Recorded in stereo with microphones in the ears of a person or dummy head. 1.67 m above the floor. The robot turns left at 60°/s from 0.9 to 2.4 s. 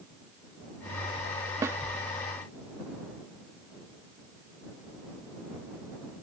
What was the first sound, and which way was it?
A snare drum, 20° right (ahead or behind).